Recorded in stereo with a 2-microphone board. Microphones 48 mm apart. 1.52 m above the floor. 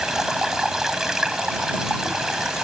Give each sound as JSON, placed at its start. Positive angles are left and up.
{"t": 0.0, "sound": "running water", "side_deg": -10}